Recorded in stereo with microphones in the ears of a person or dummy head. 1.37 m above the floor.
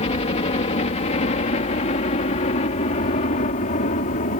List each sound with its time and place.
0.0 s a helicopter: 35° left (ahead or behind); by 4.4 s 45° left (ahead or behind)